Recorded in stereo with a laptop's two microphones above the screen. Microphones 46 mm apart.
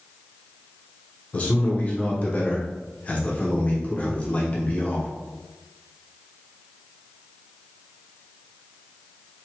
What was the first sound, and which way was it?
A man speaking, 30° left (ahead or behind).